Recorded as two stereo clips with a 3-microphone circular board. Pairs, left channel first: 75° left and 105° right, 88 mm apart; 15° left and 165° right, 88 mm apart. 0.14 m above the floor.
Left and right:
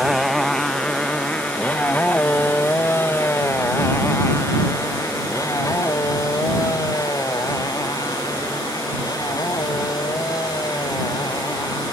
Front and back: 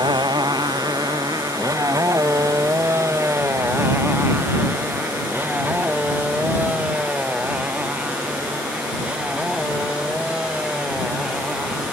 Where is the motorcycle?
165° left; by 11.9 s 115° left.